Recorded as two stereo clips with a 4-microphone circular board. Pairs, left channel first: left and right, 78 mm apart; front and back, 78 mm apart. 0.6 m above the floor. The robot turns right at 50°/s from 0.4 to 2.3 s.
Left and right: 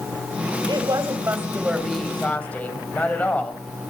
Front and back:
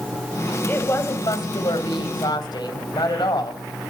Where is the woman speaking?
60° right, 3 m; by 3.6 s 20° left, 3 m.